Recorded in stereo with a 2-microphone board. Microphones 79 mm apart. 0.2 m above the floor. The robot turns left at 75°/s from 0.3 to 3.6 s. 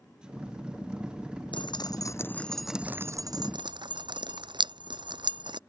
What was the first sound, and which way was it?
Dripping, 80° left.